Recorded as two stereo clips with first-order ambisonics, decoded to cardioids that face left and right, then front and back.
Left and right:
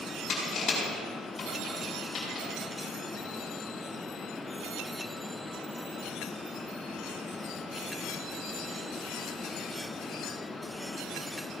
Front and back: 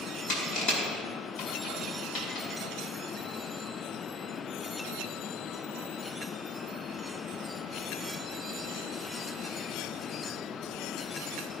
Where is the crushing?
35° left, 5 m.